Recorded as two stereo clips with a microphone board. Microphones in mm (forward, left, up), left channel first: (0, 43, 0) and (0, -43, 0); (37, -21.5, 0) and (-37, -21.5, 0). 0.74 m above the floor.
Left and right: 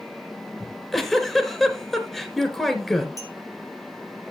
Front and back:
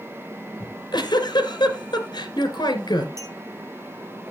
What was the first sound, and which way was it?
A giggle, straight ahead.